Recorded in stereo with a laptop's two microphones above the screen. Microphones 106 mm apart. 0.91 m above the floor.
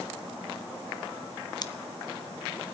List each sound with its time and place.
1.6 s scissors: 40° left (ahead or behind), 0.6 m